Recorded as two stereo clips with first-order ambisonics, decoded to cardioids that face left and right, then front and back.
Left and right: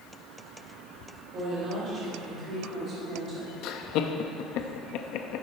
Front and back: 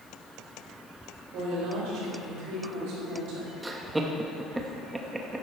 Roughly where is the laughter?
Left.